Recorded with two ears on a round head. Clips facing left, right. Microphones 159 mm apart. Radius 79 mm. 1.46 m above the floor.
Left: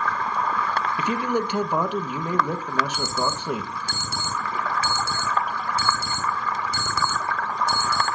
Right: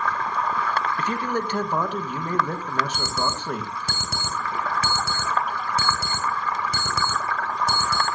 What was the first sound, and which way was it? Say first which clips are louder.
A man speaking: left 2 dB; 10° left (ahead or behind).